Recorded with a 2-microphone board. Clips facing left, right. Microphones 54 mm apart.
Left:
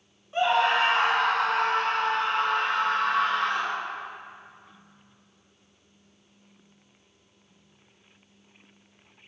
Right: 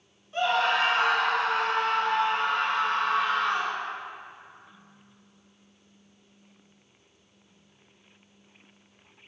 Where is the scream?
20° left (ahead or behind), 1.1 m; by 3.8 s 70° left (ahead or behind), 3 m.